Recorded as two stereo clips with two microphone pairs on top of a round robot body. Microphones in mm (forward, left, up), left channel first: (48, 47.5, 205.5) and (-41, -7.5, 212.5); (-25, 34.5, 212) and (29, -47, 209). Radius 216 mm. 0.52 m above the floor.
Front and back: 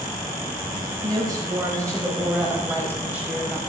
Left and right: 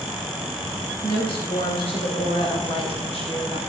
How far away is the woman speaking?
About 4.5 m.